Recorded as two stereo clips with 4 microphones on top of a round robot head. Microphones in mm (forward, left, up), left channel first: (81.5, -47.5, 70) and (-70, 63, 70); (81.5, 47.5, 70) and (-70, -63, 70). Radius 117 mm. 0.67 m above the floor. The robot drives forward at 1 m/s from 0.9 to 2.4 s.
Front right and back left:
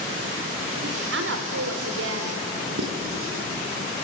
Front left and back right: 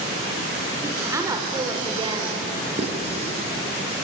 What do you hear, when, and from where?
0.8 s a woman speaking: 140° left, 3 m; by 2.5 s 155° left, 4 m
2.8 s writing: 155° left, 5 m